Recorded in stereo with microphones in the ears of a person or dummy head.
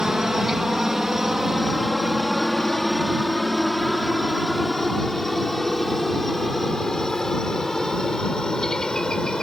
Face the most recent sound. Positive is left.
turn(degrees=5)  # may be behind; listen again after turning